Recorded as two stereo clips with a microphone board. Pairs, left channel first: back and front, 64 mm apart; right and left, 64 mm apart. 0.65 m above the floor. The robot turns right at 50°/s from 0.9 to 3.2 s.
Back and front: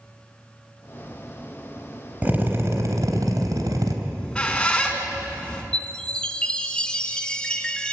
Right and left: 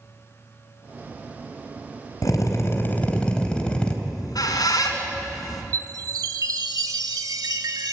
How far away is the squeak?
About 3.5 m.